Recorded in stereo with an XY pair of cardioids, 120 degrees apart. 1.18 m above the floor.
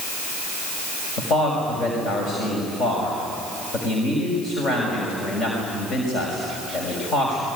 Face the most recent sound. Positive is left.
turn(degrees=60)